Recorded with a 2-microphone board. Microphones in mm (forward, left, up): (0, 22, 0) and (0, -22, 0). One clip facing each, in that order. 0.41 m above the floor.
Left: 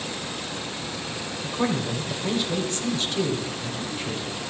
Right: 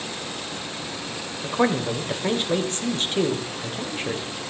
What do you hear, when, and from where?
1.4 s a man speaking: 40° right (ahead or behind), 1.9 m